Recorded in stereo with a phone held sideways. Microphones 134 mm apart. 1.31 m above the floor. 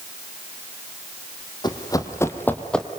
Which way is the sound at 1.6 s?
30° left (ahead or behind).